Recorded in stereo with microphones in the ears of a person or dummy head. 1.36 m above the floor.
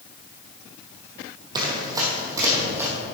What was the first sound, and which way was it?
Running footsteps, 25° right (ahead or behind).